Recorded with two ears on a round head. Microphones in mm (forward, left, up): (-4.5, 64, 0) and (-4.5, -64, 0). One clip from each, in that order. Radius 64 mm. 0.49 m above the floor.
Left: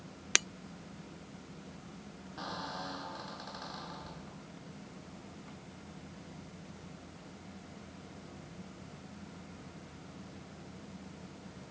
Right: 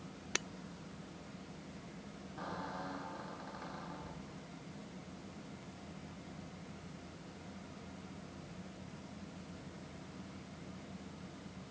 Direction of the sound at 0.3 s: 50° left (ahead or behind).